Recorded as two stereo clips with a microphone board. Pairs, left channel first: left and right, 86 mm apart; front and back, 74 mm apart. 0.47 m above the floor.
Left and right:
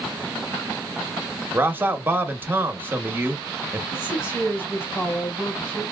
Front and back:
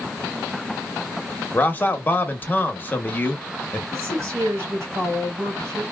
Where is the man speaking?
40° right, 0.8 m.